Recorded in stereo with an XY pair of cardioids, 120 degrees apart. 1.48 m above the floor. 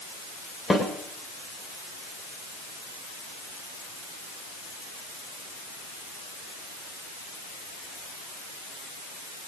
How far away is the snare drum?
About 6.5 m.